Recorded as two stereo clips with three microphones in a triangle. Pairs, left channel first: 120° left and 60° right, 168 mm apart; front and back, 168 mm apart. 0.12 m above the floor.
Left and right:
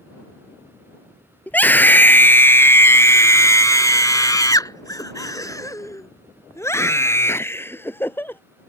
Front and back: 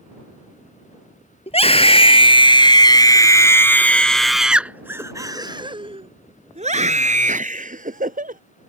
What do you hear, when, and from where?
1.5 s a scream: 40° left; by 8.4 s 165° right